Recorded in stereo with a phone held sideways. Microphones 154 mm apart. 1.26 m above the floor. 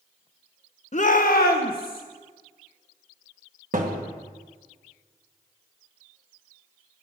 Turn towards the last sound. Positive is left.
turn(degrees=-60)  # may be behind; listen again after turning